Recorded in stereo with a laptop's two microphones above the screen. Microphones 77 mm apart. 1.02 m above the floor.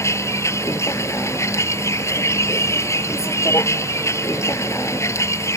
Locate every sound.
0.0 s a vehicle: 40° left (ahead or behind)